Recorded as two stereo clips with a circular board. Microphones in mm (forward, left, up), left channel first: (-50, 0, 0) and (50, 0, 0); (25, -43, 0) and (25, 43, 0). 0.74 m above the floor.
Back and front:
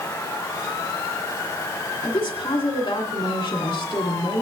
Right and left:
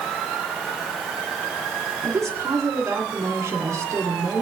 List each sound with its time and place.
2.0 s a woman speaking: 145° left, 2.5 m